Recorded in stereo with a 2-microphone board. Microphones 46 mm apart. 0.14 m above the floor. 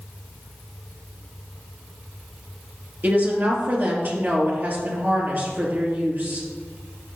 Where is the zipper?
I don't hear a zipper.